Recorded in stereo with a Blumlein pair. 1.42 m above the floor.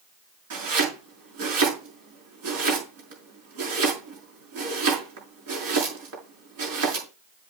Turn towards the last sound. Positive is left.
turn(degrees=-50)